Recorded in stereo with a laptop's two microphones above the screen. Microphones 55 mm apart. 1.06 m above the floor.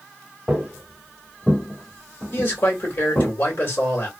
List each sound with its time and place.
0.5 s footsteps: 5° right (ahead or behind), 1.2 m; by 3.3 s 50° left (ahead or behind), 1.5 m
2.3 s a man speaking: 50° left (ahead or behind), 1.9 m